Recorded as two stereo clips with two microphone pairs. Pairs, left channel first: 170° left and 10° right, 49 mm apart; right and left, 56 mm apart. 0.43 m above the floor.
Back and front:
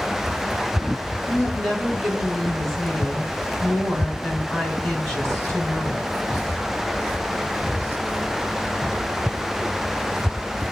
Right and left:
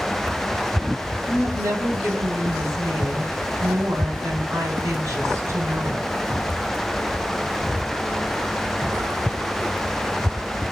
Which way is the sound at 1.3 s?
85° left.